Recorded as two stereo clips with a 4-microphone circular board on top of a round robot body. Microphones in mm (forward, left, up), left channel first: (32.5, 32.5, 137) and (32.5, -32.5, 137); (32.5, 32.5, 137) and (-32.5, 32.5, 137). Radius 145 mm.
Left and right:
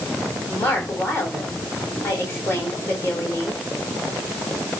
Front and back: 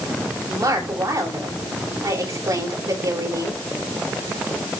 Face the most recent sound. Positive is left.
turn(degrees=150)